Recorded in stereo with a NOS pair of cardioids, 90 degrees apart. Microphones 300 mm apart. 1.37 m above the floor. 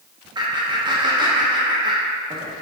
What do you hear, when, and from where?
0.3 s laughter: 15° right, 0.6 m